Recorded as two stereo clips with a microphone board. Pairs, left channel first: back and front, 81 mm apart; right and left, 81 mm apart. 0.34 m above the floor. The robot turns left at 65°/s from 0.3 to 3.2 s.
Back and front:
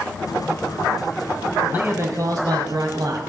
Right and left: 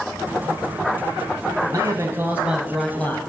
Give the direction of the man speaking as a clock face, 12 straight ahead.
10 o'clock.